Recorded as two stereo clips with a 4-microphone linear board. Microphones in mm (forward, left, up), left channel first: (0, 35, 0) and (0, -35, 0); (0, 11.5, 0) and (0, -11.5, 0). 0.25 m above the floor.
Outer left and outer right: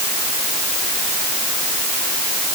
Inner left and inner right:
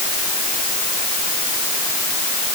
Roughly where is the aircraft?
I don't hear an aircraft.